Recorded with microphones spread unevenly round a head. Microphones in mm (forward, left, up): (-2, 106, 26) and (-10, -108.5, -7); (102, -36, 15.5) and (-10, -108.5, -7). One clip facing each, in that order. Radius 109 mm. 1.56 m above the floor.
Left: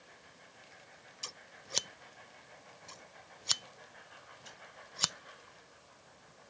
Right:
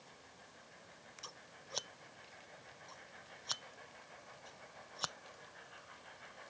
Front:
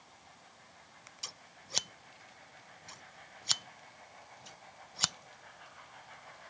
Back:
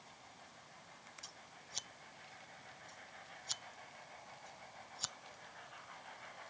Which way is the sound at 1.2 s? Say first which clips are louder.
Left 5 dB, front 3 dB; 35° left.